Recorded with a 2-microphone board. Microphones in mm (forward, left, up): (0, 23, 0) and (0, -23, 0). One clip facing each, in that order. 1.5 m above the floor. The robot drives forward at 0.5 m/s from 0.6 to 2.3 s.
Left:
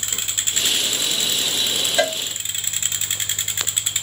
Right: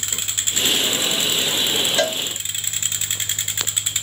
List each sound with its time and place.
2.0 s a cowbell: 15° left (ahead or behind), 0.7 m; by 2.2 s 20° left (ahead or behind), 0.7 m